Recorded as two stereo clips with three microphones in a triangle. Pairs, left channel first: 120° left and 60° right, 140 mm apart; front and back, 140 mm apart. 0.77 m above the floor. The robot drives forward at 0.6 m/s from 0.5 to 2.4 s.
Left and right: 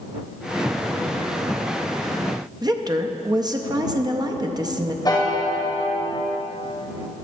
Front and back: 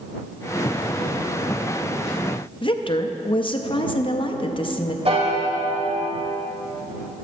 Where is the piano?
170° left, 1.3 m.